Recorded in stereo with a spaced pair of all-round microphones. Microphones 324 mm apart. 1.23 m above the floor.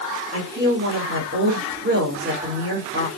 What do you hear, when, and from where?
0.3 s a woman speaking: 40° right (ahead or behind), 3.5 m